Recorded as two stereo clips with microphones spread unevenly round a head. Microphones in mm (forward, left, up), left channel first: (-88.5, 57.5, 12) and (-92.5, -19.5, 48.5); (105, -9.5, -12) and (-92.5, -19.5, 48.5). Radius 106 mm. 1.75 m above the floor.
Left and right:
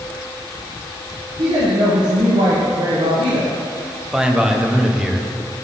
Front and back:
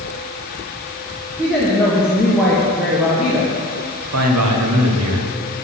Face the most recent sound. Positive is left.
turn(degrees=-175)